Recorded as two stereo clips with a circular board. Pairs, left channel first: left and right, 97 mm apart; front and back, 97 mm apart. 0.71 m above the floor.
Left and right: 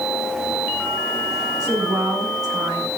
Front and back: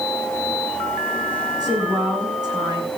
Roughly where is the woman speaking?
Behind right.